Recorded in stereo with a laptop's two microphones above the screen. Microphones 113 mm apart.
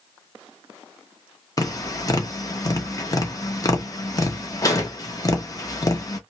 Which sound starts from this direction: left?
Tapping, at 1.6 s.